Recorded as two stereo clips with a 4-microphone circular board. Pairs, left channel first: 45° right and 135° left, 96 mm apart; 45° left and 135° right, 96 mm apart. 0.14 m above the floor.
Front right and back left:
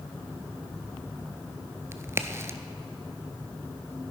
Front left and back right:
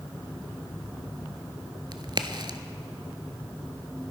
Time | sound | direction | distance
1.9 | a crack | 165° right | 0.6 m